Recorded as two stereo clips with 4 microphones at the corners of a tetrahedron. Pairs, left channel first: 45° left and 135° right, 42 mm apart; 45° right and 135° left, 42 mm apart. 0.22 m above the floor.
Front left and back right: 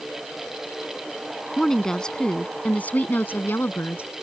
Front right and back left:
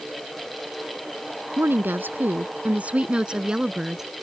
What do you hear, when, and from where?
1.6 s a woman speaking: 130° left; by 4.1 s 55° left